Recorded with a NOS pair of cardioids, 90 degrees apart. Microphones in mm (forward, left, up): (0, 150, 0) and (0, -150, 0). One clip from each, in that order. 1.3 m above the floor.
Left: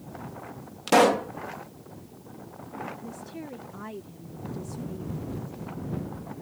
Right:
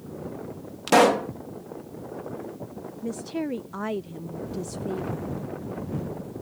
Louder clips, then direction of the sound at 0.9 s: Right 2 dB; 5° right.